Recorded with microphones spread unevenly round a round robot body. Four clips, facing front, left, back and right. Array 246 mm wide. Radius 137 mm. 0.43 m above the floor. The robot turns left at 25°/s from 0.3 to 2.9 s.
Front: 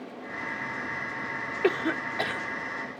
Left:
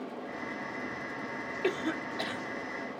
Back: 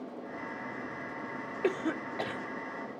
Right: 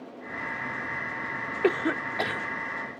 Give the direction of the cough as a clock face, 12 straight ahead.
2 o'clock.